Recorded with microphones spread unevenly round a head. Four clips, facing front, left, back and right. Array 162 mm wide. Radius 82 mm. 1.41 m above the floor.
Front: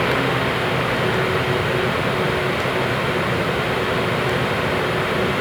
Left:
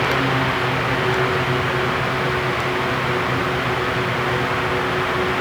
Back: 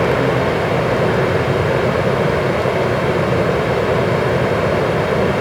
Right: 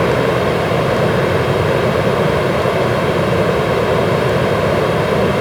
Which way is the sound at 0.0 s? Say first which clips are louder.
Right 6 dB, back 5 dB; 115° right.